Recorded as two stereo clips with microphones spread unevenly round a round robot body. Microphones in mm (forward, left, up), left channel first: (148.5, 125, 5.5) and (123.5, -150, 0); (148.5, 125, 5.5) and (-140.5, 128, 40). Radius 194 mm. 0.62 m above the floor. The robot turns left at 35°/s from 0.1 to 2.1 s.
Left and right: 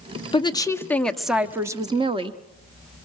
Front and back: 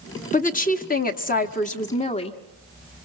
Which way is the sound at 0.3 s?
25° left.